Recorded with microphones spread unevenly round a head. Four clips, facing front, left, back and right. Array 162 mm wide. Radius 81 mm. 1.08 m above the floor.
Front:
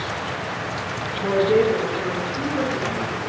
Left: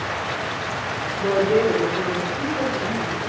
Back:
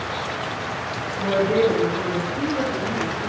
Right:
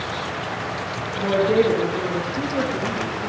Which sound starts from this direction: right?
A woman speaking, at 1.2 s.